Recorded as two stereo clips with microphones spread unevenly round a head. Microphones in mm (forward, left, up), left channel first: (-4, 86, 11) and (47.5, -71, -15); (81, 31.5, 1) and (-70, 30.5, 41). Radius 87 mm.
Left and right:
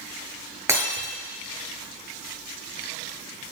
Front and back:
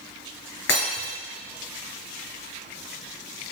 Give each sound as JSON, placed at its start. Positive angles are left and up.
{"t": 0.7, "sound": "breaking glass", "azimuth_deg": 5, "distance_m": 3.0}